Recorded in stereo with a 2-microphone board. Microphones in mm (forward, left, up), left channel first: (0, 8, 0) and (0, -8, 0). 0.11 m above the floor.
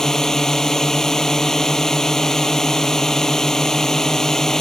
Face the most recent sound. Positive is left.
turn(degrees=30)  # may be behind; listen again after turning